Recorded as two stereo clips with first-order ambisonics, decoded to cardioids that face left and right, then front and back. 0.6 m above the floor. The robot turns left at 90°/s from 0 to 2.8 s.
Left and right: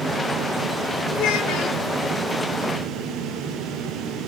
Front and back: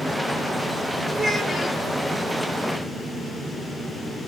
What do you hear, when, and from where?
1.1 s a child speaking: 115° left, 1.1 m; by 1.8 s 55° left, 1.1 m